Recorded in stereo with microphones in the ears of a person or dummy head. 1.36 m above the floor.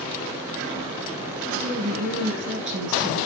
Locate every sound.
1.5 s a woman speaking: 70° right (ahead or behind), 7 m